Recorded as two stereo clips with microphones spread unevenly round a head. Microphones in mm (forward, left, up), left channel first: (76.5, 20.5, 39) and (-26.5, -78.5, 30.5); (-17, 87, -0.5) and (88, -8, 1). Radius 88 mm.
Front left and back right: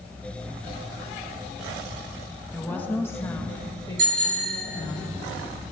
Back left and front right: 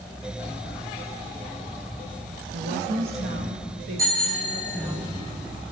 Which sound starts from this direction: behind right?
A bicycle bell, at 4.0 s.